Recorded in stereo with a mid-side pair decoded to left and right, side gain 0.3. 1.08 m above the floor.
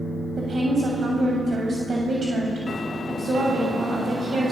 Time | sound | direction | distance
0.4 | a woman speaking | 60° right | 7.5 m